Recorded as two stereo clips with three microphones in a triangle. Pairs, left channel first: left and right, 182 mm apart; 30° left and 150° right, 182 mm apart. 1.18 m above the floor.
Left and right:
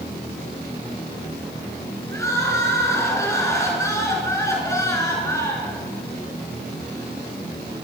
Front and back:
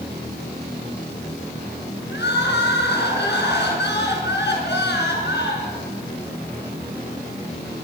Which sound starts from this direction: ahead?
Crying, at 2.1 s.